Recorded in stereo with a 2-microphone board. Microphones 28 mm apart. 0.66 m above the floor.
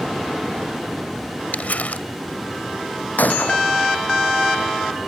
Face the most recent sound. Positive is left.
turn(degrees=75)  # may be behind; listen again after turning